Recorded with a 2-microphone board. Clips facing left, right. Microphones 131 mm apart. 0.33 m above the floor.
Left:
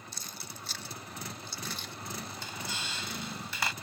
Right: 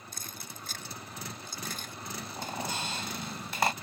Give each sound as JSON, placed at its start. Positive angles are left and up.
{"t": 0.1, "sound": "keys jangling", "side_deg": -50}
{"t": 2.4, "sound": "a squeak", "side_deg": -50}